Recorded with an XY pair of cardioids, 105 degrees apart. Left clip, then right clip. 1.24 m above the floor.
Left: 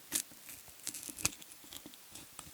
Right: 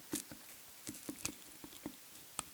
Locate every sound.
Only background noise.